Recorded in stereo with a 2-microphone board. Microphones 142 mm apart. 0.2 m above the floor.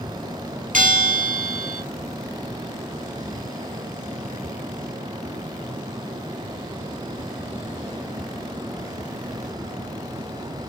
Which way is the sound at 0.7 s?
75° right (ahead or behind).